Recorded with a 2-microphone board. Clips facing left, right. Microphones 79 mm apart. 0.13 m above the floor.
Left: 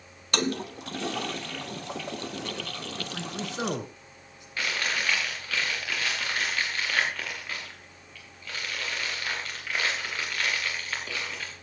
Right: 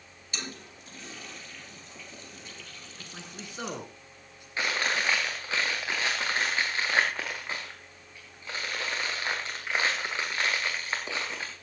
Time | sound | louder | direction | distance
0.3 | a toilet flushing | left 13 dB | 80° left | 0.8 m
3.0 | a man speaking | left 8 dB | 20° left (ahead or behind) | 1.4 m
4.6 | chewing | right 1 dB | 25° right (ahead or behind) | 4 m